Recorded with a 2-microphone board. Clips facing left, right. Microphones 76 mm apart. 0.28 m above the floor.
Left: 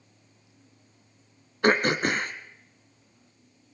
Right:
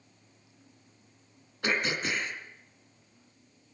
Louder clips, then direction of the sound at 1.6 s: Left 8 dB; 50° left (ahead or behind).